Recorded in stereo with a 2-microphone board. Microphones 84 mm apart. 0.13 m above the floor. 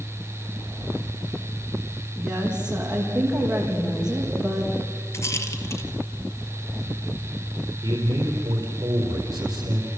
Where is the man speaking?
50° right (ahead or behind), 4 m.